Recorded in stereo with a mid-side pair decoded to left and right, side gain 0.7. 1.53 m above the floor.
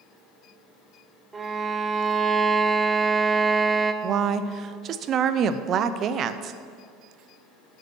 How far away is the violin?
About 0.6 m.